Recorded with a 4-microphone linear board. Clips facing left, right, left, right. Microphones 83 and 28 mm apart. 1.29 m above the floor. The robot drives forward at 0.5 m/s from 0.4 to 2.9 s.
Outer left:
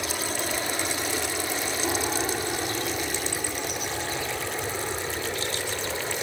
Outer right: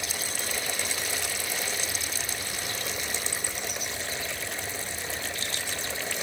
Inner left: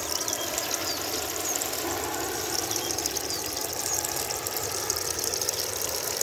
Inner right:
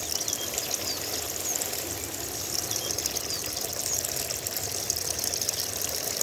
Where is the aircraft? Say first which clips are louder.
Outer left 6 dB, inner left 2 dB; 65° left (ahead or behind); by 6.2 s 70° left (ahead or behind).